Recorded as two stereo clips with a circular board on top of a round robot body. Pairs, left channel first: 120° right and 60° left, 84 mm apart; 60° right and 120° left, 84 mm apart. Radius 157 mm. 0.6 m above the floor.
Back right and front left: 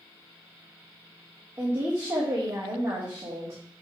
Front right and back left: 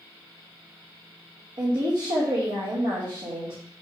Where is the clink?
No clink in this recording.